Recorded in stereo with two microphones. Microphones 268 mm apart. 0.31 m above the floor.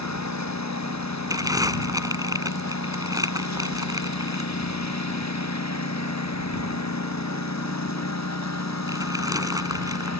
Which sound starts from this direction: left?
A lawn mower, at 0.0 s.